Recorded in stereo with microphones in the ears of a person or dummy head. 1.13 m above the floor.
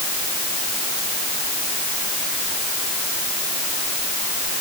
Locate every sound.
Only background noise.